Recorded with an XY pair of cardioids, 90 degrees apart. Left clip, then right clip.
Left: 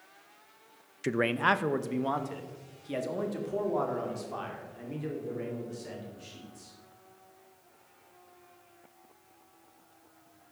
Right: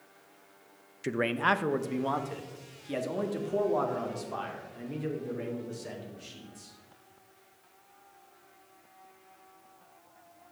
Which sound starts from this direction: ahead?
A man speaking, at 1.0 s.